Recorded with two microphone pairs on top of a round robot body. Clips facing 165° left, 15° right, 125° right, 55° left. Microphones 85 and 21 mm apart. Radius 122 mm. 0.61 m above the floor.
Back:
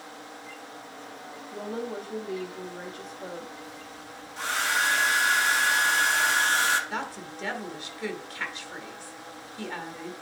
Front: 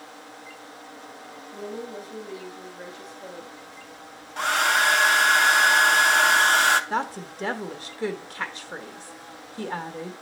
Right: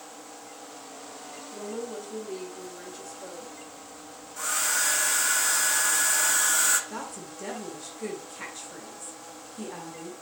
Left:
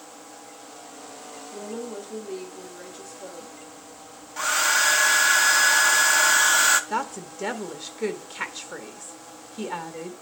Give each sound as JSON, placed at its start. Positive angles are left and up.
{"t": 1.5, "sound": "a woman speaking", "azimuth_deg": 145, "distance_m": 2.0}
{"t": 4.4, "sound": "a hair dryer", "azimuth_deg": 5, "distance_m": 0.8}
{"t": 6.9, "sound": "a woman speaking", "azimuth_deg": 25, "distance_m": 1.1}